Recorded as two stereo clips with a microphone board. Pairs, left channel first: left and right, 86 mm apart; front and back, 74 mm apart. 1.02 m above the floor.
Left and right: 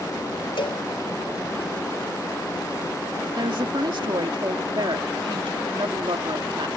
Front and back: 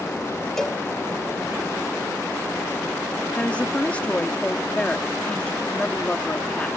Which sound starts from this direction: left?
A cowbell, at 0.6 s.